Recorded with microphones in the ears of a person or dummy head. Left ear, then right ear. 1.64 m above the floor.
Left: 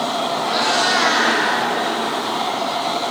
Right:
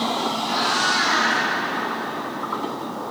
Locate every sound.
0.5 s a cat meowing: 35° left (ahead or behind), 1.6 m